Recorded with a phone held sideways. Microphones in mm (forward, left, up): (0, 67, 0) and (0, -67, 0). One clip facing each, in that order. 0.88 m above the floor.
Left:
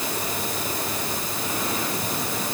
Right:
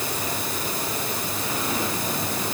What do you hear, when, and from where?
Only background noise.